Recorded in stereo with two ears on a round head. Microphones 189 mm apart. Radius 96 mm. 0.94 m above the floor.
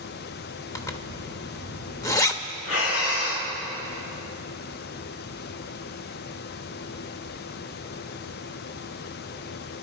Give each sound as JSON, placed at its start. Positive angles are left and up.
{"t": 0.8, "sound": "a zipper", "side_deg": 15, "distance_m": 0.7}
{"t": 2.6, "sound": "breathing", "side_deg": 70, "distance_m": 6.5}